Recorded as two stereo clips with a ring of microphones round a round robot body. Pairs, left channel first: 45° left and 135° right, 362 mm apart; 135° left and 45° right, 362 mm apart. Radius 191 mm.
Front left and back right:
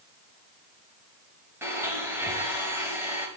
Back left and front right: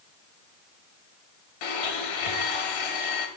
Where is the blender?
140° left, 2.0 m.